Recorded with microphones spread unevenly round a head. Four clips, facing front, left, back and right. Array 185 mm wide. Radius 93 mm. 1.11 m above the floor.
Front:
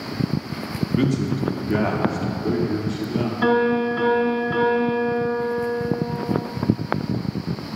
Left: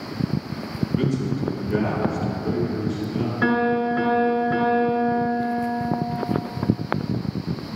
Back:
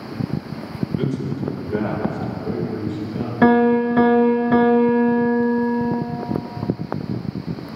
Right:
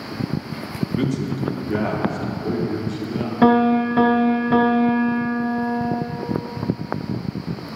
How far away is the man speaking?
About 2 m.